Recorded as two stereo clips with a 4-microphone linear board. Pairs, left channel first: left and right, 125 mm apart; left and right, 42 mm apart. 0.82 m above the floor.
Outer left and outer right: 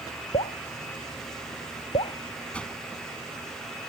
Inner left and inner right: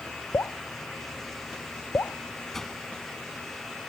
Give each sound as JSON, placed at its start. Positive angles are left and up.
{"t": 0.3, "sound": "dripping", "side_deg": 65}
{"t": 2.5, "sound": "a whoosh", "side_deg": 10}